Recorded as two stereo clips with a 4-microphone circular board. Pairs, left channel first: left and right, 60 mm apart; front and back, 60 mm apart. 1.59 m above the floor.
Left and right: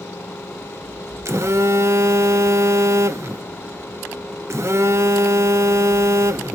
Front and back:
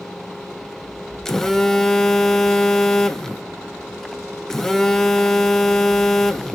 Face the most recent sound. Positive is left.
turn(degrees=-80)